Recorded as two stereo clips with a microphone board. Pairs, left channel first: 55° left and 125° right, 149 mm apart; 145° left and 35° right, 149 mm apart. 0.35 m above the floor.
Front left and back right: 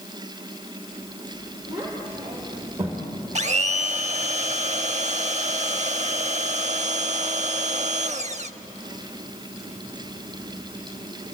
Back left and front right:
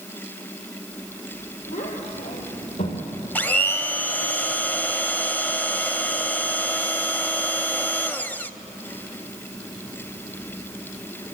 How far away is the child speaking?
About 6.5 m.